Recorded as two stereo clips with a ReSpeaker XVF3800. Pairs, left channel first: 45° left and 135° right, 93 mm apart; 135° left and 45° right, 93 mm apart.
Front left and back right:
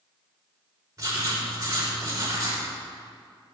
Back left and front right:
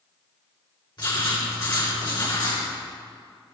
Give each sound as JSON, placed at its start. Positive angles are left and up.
{"t": 1.0, "sound": "writing", "azimuth_deg": 175, "distance_m": 4.5}